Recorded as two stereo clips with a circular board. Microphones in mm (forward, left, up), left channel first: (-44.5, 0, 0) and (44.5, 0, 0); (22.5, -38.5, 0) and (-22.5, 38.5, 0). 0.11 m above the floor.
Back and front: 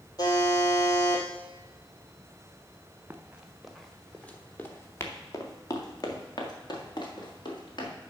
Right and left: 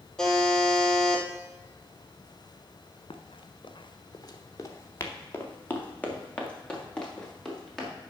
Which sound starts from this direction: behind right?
A buzzer, at 0.2 s.